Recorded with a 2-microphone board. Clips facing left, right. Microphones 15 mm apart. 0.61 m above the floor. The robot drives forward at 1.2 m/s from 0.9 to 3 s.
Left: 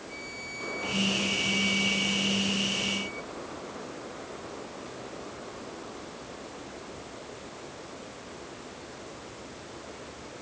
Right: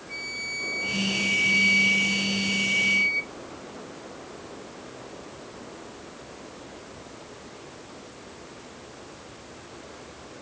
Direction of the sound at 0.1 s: 35° right (ahead or behind).